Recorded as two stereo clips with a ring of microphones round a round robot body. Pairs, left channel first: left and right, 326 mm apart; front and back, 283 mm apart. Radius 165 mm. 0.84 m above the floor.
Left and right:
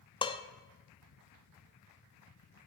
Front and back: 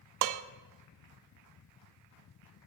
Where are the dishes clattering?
165° left, 0.8 m.